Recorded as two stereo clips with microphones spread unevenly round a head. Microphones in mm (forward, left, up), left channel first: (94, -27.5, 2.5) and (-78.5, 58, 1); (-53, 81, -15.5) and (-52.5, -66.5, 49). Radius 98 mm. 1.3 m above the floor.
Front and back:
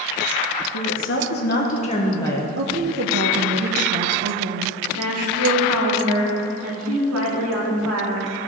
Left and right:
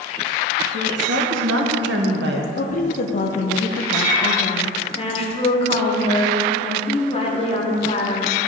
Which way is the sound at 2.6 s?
120° left.